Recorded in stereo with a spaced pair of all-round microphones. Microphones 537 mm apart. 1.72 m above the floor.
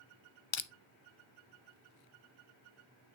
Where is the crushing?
60° left (ahead or behind), 0.6 m.